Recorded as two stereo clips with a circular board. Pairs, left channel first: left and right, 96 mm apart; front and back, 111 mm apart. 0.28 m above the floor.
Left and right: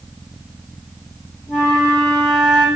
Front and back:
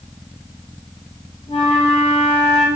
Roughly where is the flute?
Ahead.